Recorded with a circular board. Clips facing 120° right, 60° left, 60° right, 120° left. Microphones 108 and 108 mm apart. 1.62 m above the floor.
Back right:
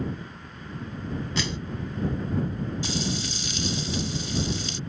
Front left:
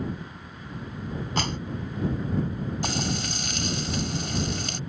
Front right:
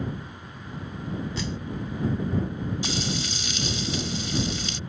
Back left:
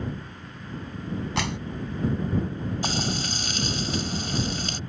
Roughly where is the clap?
Left.